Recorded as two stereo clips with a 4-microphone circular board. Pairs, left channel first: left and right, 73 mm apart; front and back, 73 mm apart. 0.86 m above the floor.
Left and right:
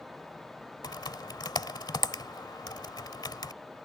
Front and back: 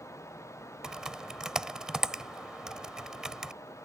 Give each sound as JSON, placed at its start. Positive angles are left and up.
{"t": 0.8, "sound": "typing on a keyboard", "azimuth_deg": 100}